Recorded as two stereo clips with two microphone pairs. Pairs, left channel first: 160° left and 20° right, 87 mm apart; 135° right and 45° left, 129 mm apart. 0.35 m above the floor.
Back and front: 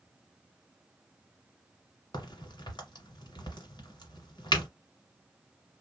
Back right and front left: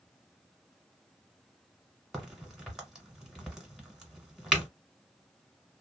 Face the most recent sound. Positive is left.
turn(degrees=135)